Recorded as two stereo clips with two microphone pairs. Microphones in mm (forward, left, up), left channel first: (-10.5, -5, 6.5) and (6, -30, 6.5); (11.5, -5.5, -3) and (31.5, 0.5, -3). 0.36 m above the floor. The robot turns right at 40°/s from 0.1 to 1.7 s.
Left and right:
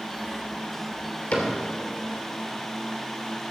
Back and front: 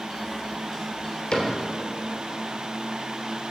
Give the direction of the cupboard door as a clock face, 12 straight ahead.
7 o'clock.